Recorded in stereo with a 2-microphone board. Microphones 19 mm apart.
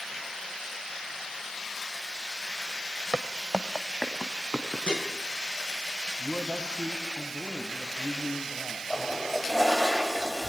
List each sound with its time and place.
3.1 s footsteps: 40° right (ahead or behind), 1.3 m; by 4.8 s 25° right (ahead or behind), 3.5 m
4.9 s dishes clattering: 50° left (ahead or behind), 5.5 m
6.2 s a man speaking: 65° left (ahead or behind), 5 m
8.9 s a toilet flushing: 5° left (ahead or behind), 3.5 m